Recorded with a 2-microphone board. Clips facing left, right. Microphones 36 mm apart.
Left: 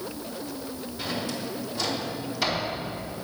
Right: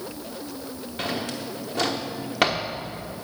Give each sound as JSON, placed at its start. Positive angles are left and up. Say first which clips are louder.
{"t": 1.0, "sound": "a drawer", "louder": "right 2 dB", "side_deg": -70, "distance_m": 1.1}